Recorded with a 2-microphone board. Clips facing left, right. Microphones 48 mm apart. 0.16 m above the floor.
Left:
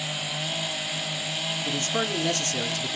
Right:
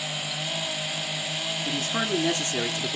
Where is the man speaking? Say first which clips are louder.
Right 1 dB; 10° right (ahead or behind), 1.7 m; by 3.0 s 30° right (ahead or behind), 1.5 m.